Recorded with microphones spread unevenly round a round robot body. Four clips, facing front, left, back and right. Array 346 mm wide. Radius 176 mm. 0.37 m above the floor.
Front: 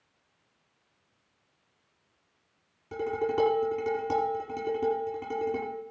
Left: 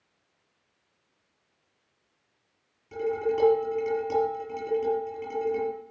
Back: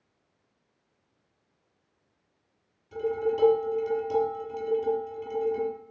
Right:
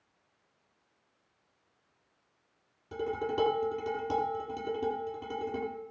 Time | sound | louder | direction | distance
2.9 | dishes clattering | left 5 dB, back 1 dB | 20° right | 7 m